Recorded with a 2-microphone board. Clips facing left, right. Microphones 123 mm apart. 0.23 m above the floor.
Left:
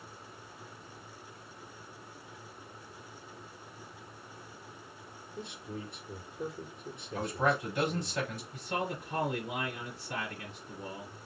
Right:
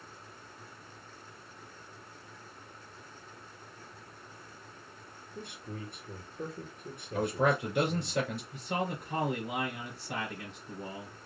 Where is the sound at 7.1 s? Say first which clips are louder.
Right 2 dB; 70° right (ahead or behind), 2.5 m.